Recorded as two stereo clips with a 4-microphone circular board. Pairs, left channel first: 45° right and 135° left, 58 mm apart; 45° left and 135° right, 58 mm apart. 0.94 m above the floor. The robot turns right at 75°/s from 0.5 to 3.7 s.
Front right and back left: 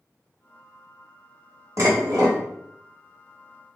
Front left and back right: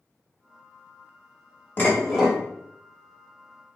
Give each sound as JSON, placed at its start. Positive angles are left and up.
{"t": 1.8, "sound": "dishes clattering", "azimuth_deg": 105, "distance_m": 1.4}